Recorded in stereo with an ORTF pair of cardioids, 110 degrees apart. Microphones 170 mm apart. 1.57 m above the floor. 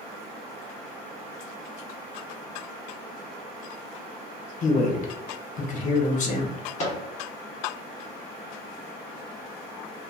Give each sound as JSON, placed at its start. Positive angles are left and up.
{"t": 4.6, "sound": "a man speaking", "azimuth_deg": 50, "distance_m": 0.8}
{"t": 6.8, "sound": "a microwave", "azimuth_deg": 45, "distance_m": 1.0}